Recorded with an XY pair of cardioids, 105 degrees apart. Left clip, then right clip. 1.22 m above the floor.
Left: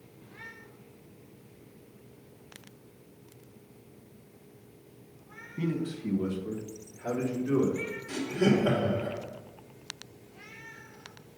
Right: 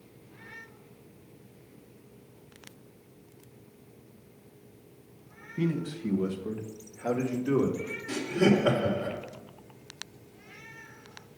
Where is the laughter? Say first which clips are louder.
Right 2 dB; 45° right, 2 m.